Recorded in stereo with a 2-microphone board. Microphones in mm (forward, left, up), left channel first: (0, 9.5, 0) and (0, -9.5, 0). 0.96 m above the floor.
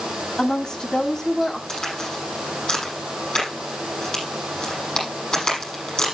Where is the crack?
40° left (ahead or behind), 6.5 m.